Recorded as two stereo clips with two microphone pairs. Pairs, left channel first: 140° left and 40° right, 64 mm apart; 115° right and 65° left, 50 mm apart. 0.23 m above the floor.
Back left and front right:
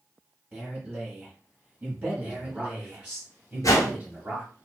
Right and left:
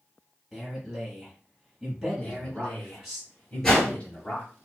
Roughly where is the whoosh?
Behind.